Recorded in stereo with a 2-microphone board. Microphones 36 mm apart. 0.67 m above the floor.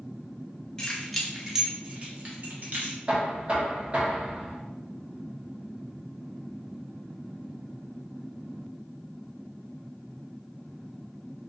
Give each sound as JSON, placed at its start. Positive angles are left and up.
{"t": 0.8, "sound": "keys jangling", "side_deg": 20, "distance_m": 0.7}
{"t": 3.1, "sound": "knocking", "side_deg": -40, "distance_m": 1.0}